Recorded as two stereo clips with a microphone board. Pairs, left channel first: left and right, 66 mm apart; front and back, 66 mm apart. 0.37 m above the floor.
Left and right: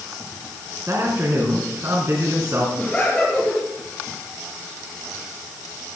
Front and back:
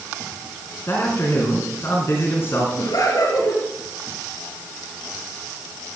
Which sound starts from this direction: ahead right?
A man speaking, at 0.9 s.